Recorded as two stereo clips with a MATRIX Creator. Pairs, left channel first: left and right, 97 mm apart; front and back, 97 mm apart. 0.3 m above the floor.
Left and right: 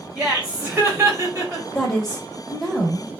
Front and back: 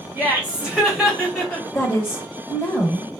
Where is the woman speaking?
10° left, 0.9 m.